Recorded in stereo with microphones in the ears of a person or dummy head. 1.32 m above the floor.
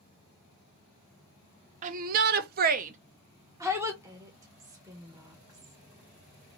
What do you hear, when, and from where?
1.8 s a shout: 40° right (ahead or behind), 0.6 m; by 3.9 s 10° right (ahead or behind), 0.8 m
4.0 s a woman speaking: 15° right (ahead or behind), 1.0 m